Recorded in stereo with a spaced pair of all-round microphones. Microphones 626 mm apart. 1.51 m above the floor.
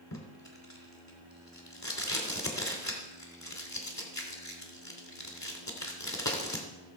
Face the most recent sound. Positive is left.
turn(degrees=25)  # may be behind; listen again after turning